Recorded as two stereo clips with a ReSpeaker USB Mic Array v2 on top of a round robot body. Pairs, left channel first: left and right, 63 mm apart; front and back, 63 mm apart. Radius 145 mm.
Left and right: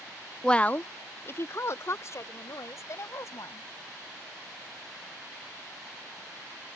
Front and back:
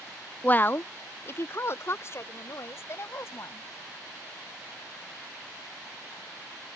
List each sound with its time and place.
0.4 s a woman speaking: 25° left; by 3.7 s 50° left